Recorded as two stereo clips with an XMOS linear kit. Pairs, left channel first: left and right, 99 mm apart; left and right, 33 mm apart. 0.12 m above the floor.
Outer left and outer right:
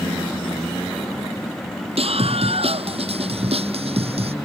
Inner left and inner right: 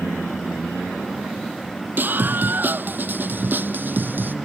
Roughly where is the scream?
Right.